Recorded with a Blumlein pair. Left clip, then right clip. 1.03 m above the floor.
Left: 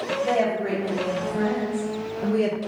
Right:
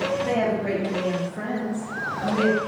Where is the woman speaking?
5° right, 1.6 m; by 2.6 s 45° left, 0.6 m.